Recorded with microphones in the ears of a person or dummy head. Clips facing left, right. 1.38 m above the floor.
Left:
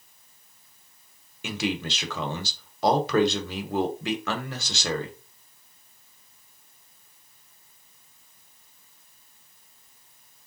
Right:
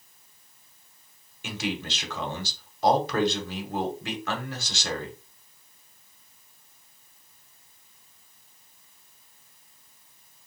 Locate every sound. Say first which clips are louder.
1.4 s a man speaking: left 3 dB; 60° left (ahead or behind), 0.9 m